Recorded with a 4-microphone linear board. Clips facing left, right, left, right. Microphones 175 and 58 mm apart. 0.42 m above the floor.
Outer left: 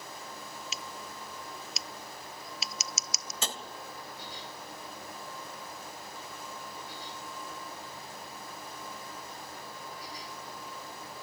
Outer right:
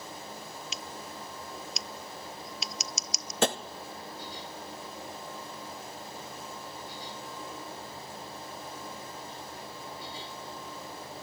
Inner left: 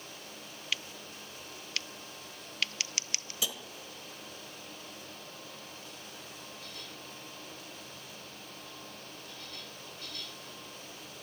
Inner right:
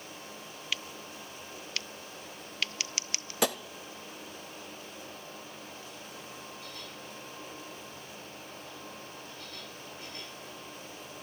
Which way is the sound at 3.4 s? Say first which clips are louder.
Outer right 12 dB, inner right 10 dB; 65° right (ahead or behind).